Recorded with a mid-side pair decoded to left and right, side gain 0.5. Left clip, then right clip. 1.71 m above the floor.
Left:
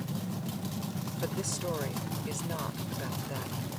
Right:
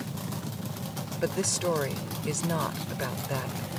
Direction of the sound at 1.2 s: 40° right.